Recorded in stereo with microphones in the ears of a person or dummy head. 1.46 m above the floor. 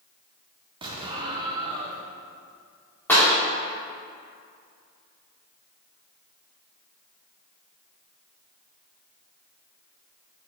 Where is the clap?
10° left (ahead or behind), 2.5 m.